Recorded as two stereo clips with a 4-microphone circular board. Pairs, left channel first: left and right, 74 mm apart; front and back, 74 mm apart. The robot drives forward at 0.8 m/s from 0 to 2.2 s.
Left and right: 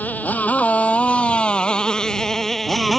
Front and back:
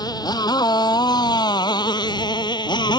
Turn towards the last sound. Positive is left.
turn(degrees=0)